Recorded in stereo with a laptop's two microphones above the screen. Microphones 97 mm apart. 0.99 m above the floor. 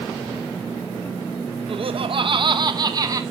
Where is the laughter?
60° right (ahead or behind), 0.7 m; by 3.2 s 35° right (ahead or behind), 1.2 m.